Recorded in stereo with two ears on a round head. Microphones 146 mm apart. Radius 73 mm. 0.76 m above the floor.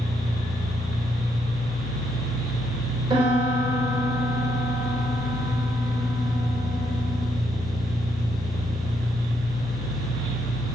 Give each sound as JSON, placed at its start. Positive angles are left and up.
{"t": 0.0, "sound": "an engine running", "side_deg": -65, "distance_m": 6.5}
{"t": 3.1, "sound": "a piano", "side_deg": -30, "distance_m": 3.0}